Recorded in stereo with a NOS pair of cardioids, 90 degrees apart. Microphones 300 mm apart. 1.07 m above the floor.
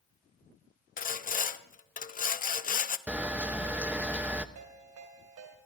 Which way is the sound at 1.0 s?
30° left.